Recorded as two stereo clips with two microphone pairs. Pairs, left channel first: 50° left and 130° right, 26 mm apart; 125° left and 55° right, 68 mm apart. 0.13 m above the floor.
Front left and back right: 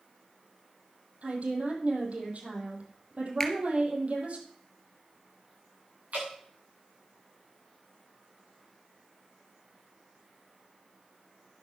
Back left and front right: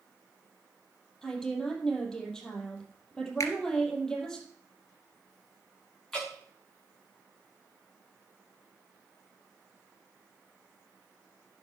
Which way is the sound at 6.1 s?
155° right.